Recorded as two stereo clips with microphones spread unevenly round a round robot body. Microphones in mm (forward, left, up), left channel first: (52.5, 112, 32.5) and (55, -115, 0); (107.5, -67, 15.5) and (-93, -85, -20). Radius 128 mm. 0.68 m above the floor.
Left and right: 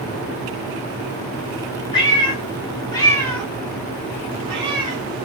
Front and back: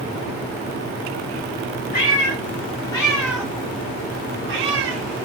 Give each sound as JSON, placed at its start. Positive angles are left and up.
{"t": 1.9, "sound": "a cat meowing", "azimuth_deg": 30, "distance_m": 1.0}